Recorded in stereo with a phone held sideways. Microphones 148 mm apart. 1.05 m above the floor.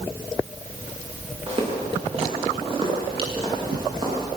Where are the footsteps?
40° right (ahead or behind), 8.5 m; by 4.3 s 35° right (ahead or behind), 11 m.